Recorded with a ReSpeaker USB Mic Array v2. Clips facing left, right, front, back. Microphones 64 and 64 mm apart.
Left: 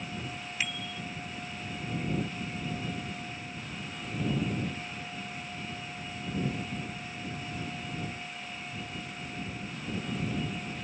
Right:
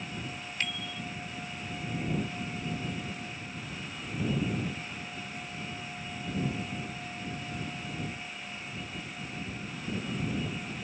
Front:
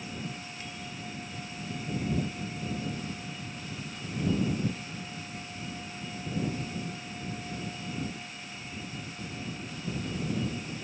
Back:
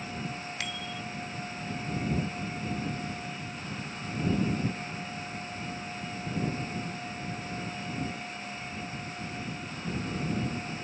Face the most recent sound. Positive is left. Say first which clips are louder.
# even, back 4 dB
turn(degrees=175)